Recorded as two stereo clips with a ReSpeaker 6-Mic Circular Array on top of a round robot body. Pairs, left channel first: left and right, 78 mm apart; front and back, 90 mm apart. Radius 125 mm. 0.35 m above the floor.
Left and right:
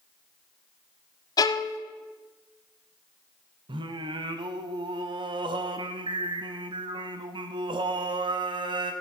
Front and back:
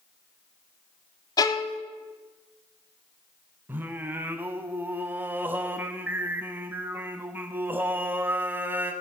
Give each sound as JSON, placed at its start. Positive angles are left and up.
{"t": 1.4, "sound": "a violin", "azimuth_deg": 50, "distance_m": 0.5}
{"t": 3.7, "sound": "singing", "azimuth_deg": -110, "distance_m": 0.6}